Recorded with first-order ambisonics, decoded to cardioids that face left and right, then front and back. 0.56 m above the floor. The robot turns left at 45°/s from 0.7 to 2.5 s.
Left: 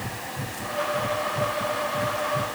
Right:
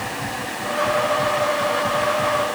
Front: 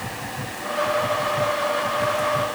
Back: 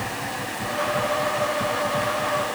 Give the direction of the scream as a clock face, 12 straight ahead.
I don't hear a scream.